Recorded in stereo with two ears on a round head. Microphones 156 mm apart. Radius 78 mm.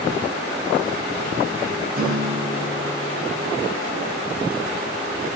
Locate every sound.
1.9 s a guitar: 60° right (ahead or behind), 6 m